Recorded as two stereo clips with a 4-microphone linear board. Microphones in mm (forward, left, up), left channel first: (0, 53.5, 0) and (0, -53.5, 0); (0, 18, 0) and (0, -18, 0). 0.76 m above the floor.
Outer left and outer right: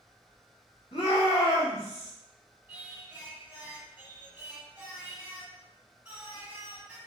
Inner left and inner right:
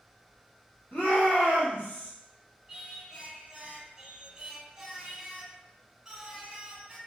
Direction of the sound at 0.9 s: 65° left (ahead or behind).